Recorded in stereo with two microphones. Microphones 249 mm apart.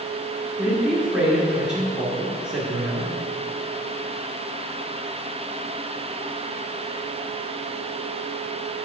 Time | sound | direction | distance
0.6 | a man speaking | 5° right (ahead or behind) | 1.4 m